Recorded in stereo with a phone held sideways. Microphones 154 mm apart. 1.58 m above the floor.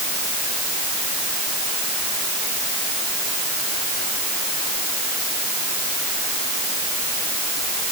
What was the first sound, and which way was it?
Only background noise.